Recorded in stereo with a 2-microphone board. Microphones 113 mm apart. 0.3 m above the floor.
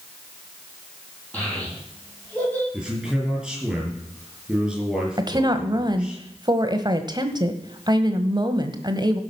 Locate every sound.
1.3 s a child speaking: 15° left (ahead or behind), 7.5 m
2.7 s a man speaking: 5° right (ahead or behind), 7.5 m
5.2 s a woman speaking: 35° right (ahead or behind), 1.3 m